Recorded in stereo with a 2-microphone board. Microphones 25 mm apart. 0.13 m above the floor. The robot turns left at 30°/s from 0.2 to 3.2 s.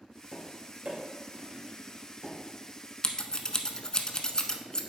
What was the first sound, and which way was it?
Tapping, 35° right (ahead or behind).